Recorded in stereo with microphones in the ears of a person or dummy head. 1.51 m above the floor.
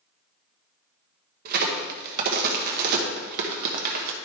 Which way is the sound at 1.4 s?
45° right (ahead or behind).